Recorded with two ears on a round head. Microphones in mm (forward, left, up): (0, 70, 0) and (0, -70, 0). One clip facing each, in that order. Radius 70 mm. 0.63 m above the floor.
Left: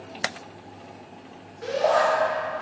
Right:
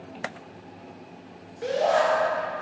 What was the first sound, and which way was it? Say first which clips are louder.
A shout: even; 30° right (ahead or behind).